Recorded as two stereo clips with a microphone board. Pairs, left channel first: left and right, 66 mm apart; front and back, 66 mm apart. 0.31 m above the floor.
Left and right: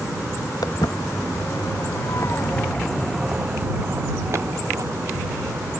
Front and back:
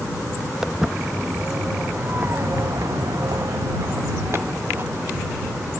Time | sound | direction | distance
0.6 | footsteps | 100° left | ?